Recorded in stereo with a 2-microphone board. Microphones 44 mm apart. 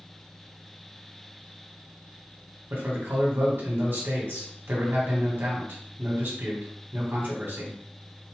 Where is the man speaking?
55° right (ahead or behind), 1.7 m.